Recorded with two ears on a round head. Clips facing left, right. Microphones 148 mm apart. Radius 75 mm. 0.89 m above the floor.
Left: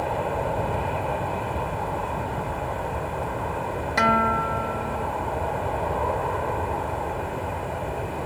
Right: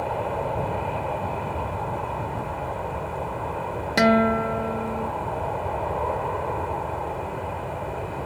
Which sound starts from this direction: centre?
An aircraft, at 0.0 s.